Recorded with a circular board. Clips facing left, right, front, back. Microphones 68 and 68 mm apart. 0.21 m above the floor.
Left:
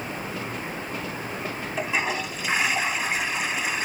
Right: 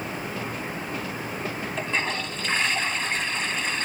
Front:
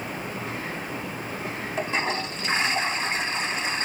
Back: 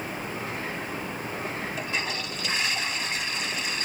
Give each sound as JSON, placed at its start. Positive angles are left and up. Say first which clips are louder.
{"t": 1.8, "sound": "a toilet flushing", "louder": "left 2 dB, front 8 dB", "azimuth_deg": 15, "distance_m": 1.1}